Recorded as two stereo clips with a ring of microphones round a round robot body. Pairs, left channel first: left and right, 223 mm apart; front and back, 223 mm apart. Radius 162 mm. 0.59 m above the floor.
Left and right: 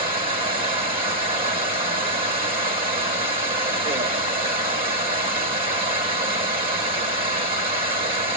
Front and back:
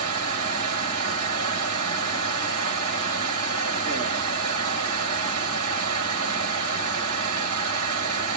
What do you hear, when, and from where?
0.0 s running water: 140° right, 3.5 m